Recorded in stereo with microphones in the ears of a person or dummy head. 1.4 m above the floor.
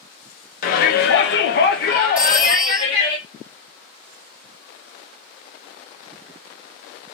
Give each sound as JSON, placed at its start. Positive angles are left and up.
{"t": 0.6, "sound": "a shout", "side_deg": 45, "distance_m": 0.6}
{"t": 2.2, "sound": "a phone ringing", "side_deg": -5, "distance_m": 0.6}